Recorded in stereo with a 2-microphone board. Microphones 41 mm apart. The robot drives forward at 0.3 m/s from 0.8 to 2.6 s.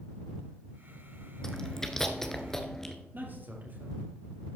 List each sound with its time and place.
1.4 s chewing: 10° left (ahead or behind), 1.2 m
3.1 s a man speaking: 55° right (ahead or behind), 3.5 m